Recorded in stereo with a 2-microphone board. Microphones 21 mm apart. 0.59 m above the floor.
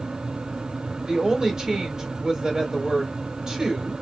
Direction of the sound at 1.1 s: 30° right (ahead or behind).